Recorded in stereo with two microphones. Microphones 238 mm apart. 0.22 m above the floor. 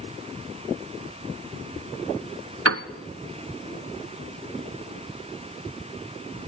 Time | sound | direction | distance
2.6 | a piano | 75° right (ahead or behind) | 0.6 m